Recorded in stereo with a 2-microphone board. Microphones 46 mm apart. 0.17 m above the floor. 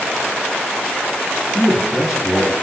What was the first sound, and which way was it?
A man speaking, centre (ahead or behind).